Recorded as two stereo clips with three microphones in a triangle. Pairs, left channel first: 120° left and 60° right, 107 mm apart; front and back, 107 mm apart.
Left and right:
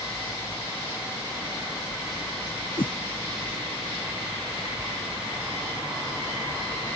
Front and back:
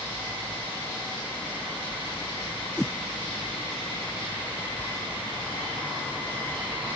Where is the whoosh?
85° left.